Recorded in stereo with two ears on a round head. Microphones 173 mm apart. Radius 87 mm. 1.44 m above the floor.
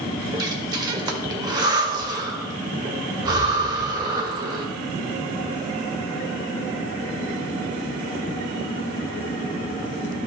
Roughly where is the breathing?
Right.